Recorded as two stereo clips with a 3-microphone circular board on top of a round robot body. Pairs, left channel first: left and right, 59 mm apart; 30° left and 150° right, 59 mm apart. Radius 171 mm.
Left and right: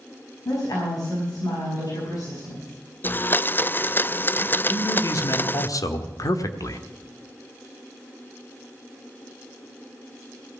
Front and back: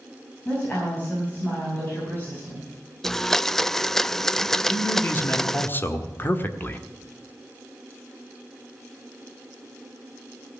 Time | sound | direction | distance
0.5 | a woman speaking | 90° left | 5.5 m
3.0 | a blender | 110° left | 0.6 m
4.7 | a man speaking | 85° left | 1.5 m